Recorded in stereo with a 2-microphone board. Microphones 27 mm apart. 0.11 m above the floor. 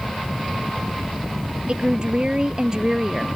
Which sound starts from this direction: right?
A woman speaking, at 1.7 s.